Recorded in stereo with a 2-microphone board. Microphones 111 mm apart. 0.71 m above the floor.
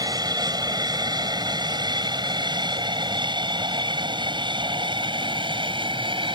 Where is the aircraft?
35° right (ahead or behind); by 6.4 s 50° right (ahead or behind).